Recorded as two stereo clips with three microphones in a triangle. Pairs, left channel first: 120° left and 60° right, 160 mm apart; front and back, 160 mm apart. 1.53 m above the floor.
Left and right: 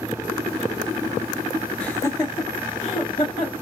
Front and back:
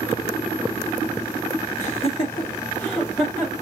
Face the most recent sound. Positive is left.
turn(degrees=95)